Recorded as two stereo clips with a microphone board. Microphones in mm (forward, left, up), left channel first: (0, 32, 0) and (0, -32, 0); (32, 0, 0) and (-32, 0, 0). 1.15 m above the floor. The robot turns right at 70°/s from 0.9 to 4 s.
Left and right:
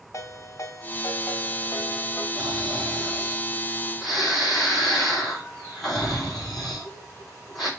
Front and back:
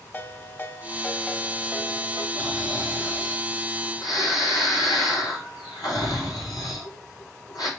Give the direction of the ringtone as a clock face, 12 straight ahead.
10 o'clock.